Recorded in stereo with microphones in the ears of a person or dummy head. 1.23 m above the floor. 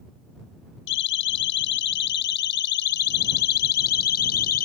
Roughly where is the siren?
Left.